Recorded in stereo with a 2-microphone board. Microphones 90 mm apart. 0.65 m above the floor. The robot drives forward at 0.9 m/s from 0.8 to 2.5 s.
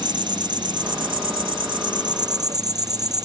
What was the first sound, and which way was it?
An insect, 60° right (ahead or behind).